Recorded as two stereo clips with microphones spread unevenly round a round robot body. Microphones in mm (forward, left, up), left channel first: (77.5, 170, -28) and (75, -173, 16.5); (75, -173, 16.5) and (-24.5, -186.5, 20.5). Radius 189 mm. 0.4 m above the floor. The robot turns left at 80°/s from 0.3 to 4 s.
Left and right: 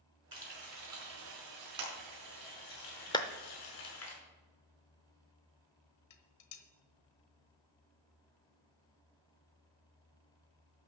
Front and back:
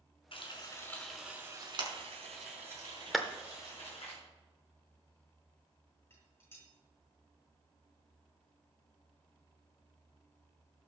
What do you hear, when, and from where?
0.3 s frying: 10° right, 5 m; by 4.1 s 55° left, 5 m
3.1 s a clap: 95° left, 0.6 m; by 3.3 s 85° left, 0.6 m
6.1 s dishes clattering: 80° left, 1.2 m